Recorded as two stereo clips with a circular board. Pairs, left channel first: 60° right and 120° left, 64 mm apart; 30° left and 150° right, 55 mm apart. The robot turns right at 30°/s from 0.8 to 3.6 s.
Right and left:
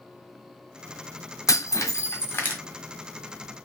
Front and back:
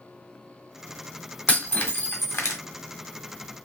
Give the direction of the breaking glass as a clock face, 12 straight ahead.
1 o'clock.